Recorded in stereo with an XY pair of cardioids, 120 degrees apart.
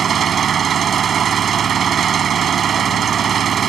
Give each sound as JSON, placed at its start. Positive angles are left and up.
{"t": 0.0, "sound": "an engine running", "azimuth_deg": -45}